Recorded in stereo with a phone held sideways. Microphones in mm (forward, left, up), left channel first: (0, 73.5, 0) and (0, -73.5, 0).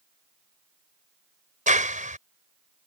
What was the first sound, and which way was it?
A clap, 60° right (ahead or behind).